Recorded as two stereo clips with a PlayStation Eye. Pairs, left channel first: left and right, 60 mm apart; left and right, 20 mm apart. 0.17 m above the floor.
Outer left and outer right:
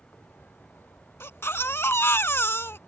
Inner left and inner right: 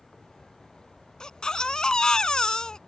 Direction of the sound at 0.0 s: 40° left (ahead or behind).